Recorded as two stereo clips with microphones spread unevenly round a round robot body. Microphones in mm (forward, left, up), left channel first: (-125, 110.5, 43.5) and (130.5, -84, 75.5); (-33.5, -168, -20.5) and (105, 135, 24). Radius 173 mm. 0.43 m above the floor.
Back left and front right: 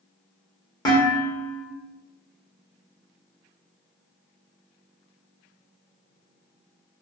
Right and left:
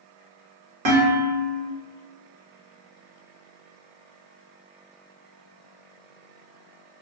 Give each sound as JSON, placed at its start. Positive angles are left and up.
{"t": 0.8, "sound": "dishes clattering", "azimuth_deg": 70, "distance_m": 1.3}